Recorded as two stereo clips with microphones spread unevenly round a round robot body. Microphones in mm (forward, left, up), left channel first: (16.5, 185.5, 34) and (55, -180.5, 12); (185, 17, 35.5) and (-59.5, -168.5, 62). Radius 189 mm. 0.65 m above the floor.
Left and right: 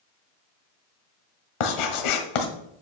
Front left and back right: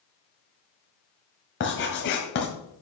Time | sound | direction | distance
1.6 | writing | 100° left | 1.7 m